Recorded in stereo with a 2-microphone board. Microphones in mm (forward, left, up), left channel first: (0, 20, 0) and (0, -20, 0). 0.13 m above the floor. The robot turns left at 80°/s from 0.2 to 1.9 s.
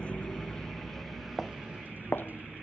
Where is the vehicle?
25° left (ahead or behind); by 2.6 s 40° right (ahead or behind).